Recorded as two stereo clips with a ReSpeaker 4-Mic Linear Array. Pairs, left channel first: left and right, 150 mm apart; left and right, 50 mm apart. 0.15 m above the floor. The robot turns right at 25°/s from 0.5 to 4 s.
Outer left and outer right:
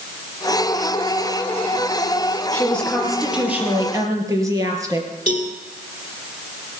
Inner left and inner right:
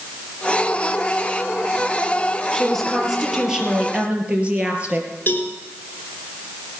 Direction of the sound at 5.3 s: 40° left (ahead or behind).